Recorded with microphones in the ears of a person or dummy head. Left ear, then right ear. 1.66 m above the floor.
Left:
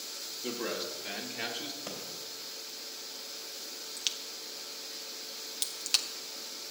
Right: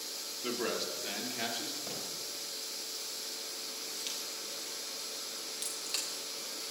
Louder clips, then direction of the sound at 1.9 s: Even; 50° left (ahead or behind).